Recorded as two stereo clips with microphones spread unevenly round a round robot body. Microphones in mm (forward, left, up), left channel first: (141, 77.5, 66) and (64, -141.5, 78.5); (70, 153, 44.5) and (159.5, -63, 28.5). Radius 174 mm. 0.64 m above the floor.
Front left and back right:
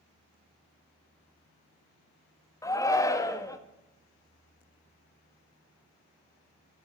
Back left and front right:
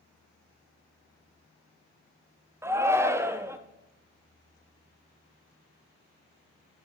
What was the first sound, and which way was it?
A shout, straight ahead.